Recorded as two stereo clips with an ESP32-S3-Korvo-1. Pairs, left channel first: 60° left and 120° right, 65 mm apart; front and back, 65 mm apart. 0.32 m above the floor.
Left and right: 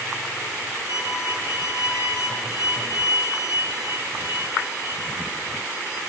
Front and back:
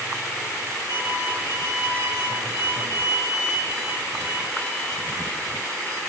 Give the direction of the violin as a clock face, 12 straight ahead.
5 o'clock.